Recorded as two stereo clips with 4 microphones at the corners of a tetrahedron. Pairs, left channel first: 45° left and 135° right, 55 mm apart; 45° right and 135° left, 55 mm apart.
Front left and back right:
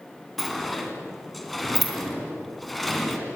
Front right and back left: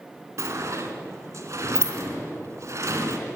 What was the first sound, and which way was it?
A sliding door, 135° left.